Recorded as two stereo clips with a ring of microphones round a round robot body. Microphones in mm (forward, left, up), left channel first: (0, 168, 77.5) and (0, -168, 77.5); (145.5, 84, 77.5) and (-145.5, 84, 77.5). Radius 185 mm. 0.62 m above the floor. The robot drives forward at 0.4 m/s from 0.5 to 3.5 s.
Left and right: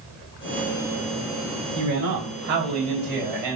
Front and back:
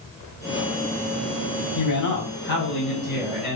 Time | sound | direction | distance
1.8 | a man speaking | 50° right | 4.5 m